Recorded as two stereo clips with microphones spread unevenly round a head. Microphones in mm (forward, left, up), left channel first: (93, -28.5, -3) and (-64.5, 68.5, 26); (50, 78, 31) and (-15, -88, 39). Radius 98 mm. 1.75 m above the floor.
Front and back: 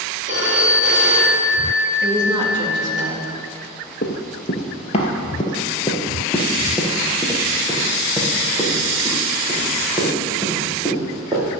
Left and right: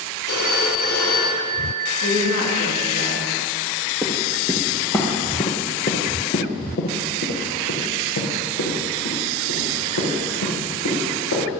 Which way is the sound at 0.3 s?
105° left.